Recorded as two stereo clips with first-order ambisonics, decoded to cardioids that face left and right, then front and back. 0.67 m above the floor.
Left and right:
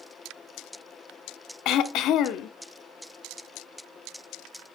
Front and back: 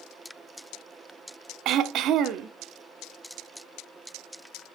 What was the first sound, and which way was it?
Throat clearing, 135° left.